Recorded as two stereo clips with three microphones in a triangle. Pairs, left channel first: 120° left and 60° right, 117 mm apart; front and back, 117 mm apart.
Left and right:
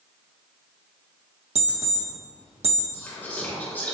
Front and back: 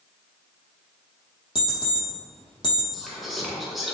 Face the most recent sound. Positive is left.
turn(degrees=95)